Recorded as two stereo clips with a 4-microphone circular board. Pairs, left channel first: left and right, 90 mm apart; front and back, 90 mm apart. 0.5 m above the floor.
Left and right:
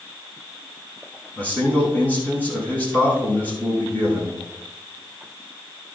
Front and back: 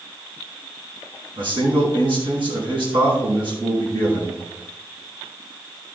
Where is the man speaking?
160° left, 5 m.